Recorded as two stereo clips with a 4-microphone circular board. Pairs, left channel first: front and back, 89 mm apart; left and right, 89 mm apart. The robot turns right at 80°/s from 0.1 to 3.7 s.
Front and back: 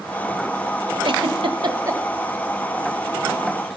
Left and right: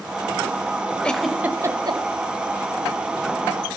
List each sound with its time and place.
1.0 s a giggle: 165° left, 1.3 m; by 2.0 s 115° right, 1.3 m